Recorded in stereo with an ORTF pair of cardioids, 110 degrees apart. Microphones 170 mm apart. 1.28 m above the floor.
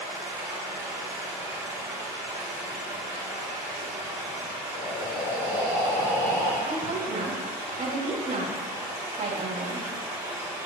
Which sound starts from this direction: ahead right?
A woman speaking, at 6.7 s.